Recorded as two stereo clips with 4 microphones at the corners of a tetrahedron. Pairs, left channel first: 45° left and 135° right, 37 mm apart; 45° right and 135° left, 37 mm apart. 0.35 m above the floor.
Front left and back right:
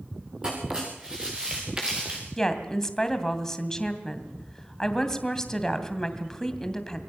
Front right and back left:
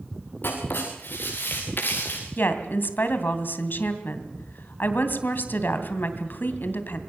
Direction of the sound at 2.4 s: 30° right.